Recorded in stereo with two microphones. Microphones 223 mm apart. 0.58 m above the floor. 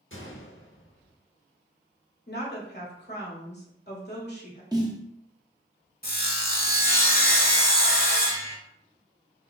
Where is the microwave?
I don't hear a microwave.